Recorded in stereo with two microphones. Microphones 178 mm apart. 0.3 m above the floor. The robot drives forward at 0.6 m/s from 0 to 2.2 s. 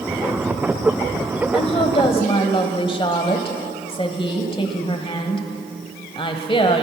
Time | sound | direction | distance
1.5 | a woman speaking | 35° left (ahead or behind) | 1.2 m